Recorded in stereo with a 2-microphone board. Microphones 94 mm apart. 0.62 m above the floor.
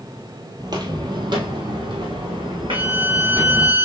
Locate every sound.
0.6 s footsteps: 45° right (ahead or behind), 1.0 m; by 3.7 s 65° right (ahead or behind), 3 m
2.7 s a violin: 20° right (ahead or behind), 0.6 m